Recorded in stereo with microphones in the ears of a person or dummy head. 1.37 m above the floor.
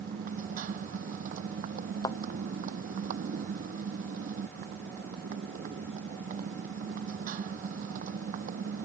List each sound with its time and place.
0.0 s a motorcycle: 50° right (ahead or behind)
2.0 s a thud: 25° left (ahead or behind)